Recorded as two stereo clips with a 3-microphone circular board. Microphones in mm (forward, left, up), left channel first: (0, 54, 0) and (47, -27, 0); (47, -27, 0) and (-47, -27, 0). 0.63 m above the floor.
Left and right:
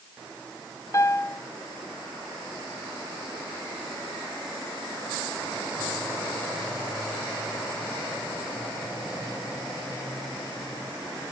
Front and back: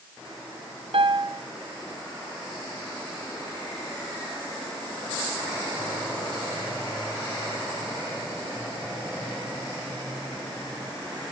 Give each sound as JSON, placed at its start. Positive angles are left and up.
{"t": 0.9, "sound": "a piano", "azimuth_deg": 175, "distance_m": 0.8}